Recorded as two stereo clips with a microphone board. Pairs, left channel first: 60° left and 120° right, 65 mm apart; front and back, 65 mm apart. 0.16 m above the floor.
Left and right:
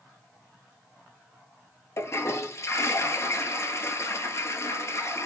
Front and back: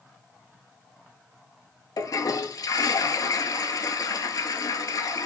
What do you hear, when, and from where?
2.0 s a toilet flushing: 20° left, 0.5 m